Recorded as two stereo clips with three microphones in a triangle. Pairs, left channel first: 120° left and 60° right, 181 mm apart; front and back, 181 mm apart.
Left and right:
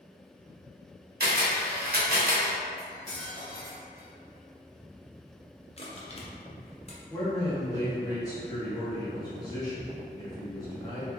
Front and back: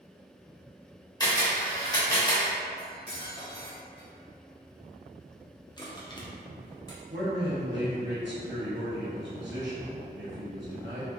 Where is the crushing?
65° left, 0.6 m.